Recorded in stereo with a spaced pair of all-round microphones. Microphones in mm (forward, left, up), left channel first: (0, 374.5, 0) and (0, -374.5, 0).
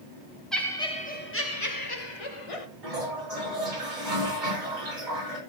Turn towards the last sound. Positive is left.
turn(degrees=-85)